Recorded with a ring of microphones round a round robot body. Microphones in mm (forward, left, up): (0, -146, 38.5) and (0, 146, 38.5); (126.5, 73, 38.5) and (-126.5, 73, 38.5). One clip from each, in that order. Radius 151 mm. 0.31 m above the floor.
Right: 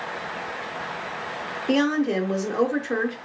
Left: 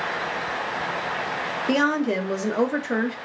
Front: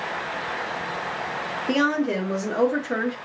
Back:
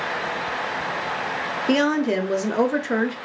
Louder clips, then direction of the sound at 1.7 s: Even, back 2 dB; 165° left.